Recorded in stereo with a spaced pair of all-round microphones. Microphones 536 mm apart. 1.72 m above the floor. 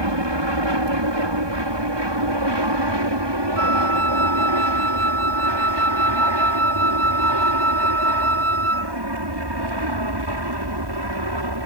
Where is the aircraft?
55° right (ahead or behind); by 11.7 s 45° right (ahead or behind).